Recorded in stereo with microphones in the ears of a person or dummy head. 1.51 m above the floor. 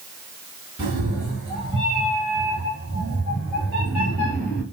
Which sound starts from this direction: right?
A cat meowing, at 0.8 s.